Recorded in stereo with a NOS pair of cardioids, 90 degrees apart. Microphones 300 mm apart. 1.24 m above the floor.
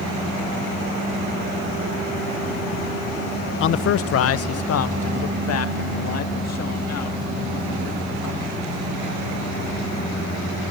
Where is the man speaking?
45° left, 0.5 m; by 8.8 s 60° left, 3 m.